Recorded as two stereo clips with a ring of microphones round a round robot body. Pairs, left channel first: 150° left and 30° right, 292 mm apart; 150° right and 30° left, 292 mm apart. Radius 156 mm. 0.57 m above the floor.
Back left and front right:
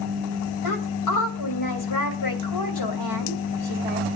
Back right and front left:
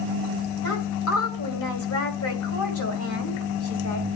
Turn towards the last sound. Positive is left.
turn(degrees=170)